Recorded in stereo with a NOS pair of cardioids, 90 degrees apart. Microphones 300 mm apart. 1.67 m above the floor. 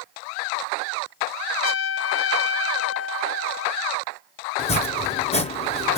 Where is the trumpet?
45° left, 0.7 m.